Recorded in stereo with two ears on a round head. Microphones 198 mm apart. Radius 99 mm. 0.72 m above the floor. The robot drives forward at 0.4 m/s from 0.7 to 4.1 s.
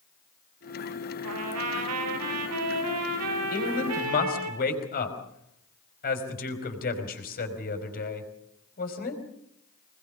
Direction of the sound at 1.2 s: 75° right (ahead or behind).